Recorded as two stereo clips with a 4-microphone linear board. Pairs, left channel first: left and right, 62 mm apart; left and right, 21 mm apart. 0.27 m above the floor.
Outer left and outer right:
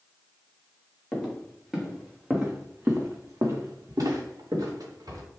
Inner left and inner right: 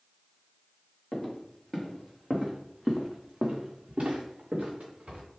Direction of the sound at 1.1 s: 5° left (ahead or behind).